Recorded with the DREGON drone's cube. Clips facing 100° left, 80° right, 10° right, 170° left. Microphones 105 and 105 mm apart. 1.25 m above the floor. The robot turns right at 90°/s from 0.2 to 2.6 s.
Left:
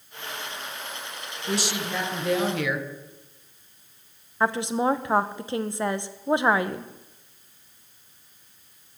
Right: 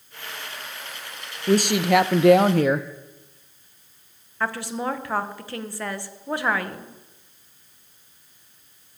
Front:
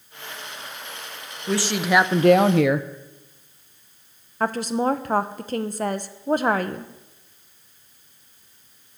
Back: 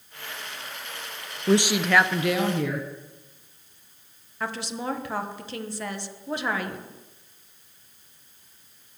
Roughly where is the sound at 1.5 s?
Behind right.